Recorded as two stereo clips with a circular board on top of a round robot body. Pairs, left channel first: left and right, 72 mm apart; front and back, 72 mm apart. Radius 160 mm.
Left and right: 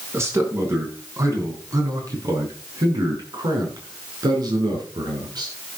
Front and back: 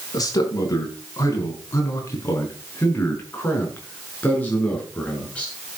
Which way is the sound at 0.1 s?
35° right.